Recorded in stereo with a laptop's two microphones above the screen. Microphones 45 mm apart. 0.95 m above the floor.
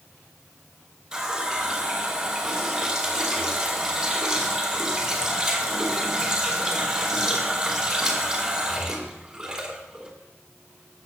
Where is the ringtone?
I don't hear a ringtone.